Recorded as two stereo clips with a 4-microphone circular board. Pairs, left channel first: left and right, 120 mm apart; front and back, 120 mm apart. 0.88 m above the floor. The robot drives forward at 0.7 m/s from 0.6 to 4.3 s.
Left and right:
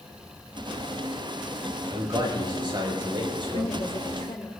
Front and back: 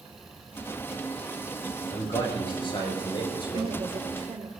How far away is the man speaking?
About 5.5 m.